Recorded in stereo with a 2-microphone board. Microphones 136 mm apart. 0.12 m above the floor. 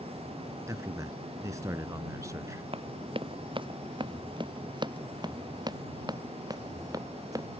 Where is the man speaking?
25° right (ahead or behind).